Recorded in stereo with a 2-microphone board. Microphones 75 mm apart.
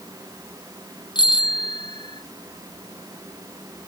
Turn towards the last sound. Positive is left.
turn(degrees=85)